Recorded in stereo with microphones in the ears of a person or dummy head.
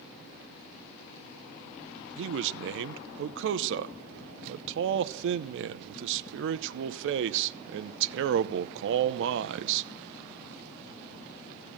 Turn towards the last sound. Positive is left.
turn(degrees=-70)  # may be behind; listen again after turning